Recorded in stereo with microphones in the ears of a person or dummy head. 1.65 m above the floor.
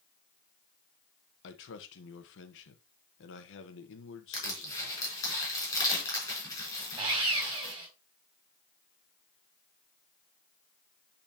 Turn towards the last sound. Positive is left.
turn(degrees=-25)  # may be behind; listen again after turning